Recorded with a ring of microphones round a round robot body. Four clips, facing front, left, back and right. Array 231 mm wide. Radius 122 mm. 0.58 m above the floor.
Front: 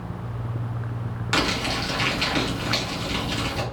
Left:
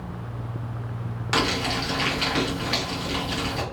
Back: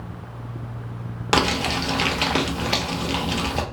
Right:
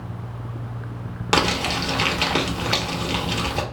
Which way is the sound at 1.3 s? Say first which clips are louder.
Right 3 dB, back 4 dB; 135° right.